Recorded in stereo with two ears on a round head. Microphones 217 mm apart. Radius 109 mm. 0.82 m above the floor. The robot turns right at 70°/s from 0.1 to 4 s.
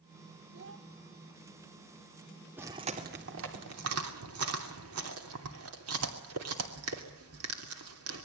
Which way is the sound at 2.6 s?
10° right (ahead or behind).